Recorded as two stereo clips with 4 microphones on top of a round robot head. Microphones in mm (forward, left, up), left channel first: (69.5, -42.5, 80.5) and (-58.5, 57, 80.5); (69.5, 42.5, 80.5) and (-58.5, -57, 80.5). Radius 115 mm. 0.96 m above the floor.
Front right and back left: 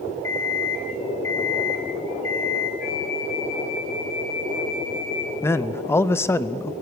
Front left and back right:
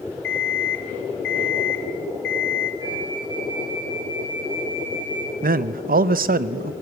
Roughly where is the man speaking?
Behind right.